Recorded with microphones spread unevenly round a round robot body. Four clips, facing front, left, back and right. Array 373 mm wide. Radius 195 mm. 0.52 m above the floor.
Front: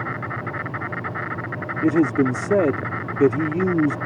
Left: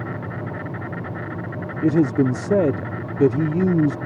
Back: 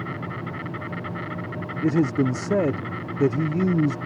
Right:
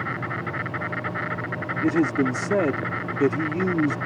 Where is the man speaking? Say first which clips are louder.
Left 4 dB, front 3 dB; 20° left.